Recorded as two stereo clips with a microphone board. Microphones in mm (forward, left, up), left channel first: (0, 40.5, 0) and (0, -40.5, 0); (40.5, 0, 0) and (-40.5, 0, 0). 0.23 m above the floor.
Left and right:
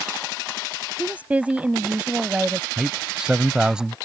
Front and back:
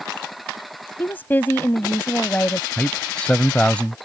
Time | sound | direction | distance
1.0 | a woman speaking | 35° right | ?
2.8 | a man speaking | 35° right | ?